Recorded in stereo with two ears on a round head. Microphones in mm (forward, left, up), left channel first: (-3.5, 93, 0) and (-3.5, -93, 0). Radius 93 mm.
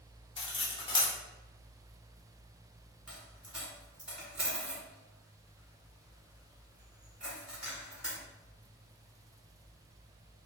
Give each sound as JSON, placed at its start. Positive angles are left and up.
{"t": 0.4, "sound": "cutlery clinking", "side_deg": 25, "distance_m": 1.0}
{"t": 3.1, "sound": "a dropped coin", "side_deg": -5, "distance_m": 1.6}